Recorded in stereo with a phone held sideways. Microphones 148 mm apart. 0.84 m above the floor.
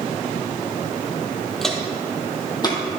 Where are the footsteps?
Centre (ahead or behind), 1.5 m; by 2.8 s 30° left (ahead or behind), 1.9 m.